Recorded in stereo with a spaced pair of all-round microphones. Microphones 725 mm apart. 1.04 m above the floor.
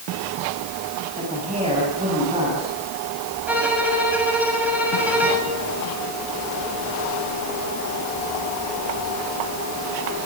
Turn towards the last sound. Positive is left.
turn(degrees=0)  # may be behind; listen again after turning